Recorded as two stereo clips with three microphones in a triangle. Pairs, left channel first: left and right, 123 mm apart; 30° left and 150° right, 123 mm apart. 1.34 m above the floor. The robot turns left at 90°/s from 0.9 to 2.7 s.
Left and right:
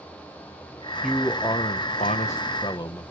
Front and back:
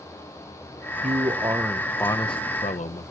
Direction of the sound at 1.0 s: 175° right.